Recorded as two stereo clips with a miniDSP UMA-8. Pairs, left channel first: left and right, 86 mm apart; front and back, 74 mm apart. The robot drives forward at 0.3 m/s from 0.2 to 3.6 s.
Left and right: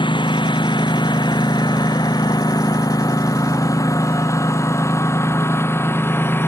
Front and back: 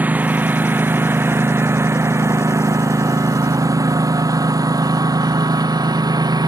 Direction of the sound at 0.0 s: 110° left.